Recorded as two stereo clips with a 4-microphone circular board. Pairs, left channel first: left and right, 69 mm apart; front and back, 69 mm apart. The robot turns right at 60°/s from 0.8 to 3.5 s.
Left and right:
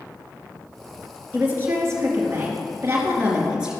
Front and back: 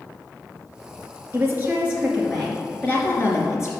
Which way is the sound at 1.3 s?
150° right.